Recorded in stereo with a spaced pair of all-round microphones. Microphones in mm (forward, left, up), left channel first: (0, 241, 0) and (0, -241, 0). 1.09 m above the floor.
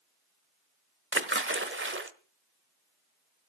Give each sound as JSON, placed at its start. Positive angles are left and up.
{"t": 1.1, "sound": "a splash", "side_deg": -25, "distance_m": 1.3}